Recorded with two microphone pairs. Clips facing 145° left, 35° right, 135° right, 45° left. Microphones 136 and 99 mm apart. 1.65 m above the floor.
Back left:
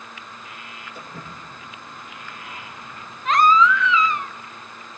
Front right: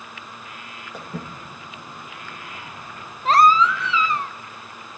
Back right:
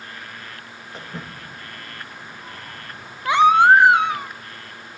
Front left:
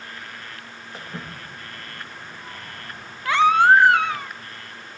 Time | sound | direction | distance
0.9 | footsteps | 40° right | 8.5 m
3.2 | a baby crying | 70° right | 0.6 m